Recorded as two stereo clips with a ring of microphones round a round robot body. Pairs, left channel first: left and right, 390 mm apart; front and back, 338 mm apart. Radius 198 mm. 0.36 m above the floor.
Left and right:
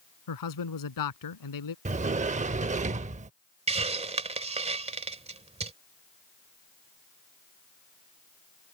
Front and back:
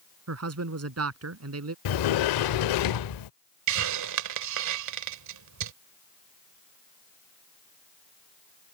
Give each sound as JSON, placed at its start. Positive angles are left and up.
{"t": 0.3, "sound": "a man speaking", "azimuth_deg": 135}
{"t": 1.9, "sound": "a sliding door", "azimuth_deg": -20}
{"t": 3.7, "sound": "a hiss", "azimuth_deg": -160}